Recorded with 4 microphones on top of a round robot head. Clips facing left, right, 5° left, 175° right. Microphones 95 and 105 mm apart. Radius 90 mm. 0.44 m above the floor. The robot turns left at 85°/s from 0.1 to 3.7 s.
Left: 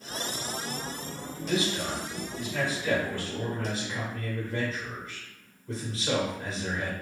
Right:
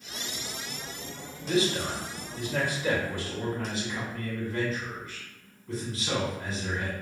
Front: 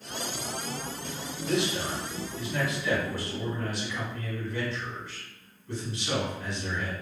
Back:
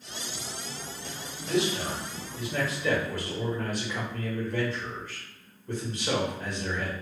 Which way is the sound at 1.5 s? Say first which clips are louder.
Right 2 dB, back 1 dB; 20° right.